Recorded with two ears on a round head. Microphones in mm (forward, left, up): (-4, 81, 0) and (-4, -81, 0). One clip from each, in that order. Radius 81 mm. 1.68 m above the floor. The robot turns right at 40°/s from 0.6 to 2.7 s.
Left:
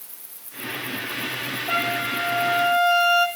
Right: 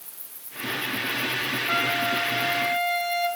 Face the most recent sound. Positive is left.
turn(degrees=95)